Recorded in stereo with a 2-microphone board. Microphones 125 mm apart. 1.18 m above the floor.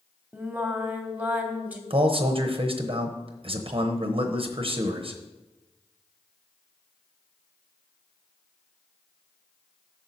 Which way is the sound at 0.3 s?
15° right (ahead or behind).